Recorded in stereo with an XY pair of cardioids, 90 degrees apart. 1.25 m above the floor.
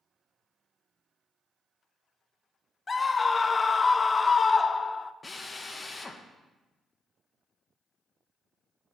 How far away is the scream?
About 0.6 m.